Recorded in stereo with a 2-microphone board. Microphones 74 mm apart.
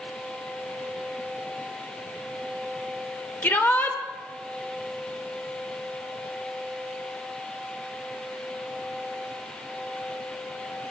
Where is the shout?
30° left (ahead or behind), 1.0 m.